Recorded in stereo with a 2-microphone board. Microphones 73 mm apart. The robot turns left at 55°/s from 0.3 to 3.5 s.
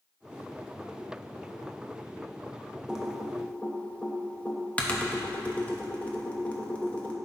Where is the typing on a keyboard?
15° right (ahead or behind), 0.9 m; by 7.2 s 20° left (ahead or behind), 0.9 m.